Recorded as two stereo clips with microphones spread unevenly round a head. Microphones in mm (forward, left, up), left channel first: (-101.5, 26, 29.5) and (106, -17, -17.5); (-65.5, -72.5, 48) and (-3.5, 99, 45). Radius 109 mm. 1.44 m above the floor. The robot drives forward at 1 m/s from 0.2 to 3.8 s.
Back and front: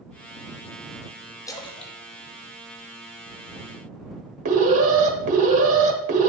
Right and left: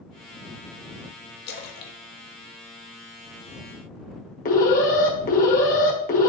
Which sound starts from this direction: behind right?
A splash, at 1.5 s.